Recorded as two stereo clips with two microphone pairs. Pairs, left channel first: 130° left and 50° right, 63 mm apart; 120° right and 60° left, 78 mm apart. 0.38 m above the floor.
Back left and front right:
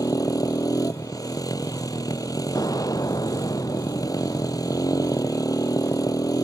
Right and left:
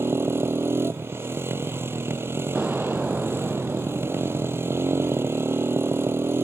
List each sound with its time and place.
0.0 s a motorcycle: 120° left
2.5 s an explosion: 140° left